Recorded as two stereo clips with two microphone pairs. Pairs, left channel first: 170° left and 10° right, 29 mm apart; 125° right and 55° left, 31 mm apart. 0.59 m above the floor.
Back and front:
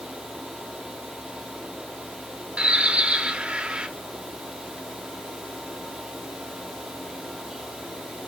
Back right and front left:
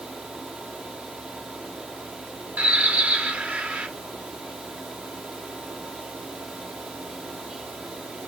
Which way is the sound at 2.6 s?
40° left.